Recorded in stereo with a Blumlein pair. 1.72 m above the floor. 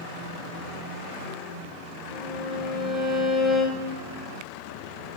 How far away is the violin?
About 2.5 m.